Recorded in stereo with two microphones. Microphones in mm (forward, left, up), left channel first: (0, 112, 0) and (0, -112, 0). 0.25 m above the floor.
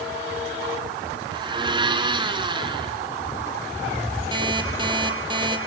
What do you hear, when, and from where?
1.3 s a blender: 20° right (ahead or behind), 2.5 m
4.3 s an alarm clock: 20° right (ahead or behind), 3 m